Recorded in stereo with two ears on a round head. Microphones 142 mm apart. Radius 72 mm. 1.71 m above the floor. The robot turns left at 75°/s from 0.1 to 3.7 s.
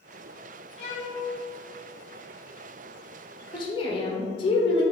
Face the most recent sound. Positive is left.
turn(degrees=35)  # may be behind; listen again after turning